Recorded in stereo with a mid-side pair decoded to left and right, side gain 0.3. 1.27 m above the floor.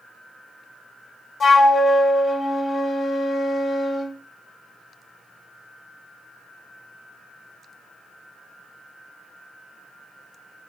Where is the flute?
65° left, 1.0 m.